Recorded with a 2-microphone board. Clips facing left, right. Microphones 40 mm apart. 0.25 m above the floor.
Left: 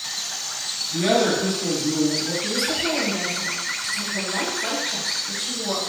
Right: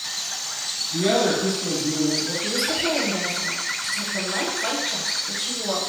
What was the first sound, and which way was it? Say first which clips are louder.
A woman speaking: left 1 dB; 30° left (ahead or behind).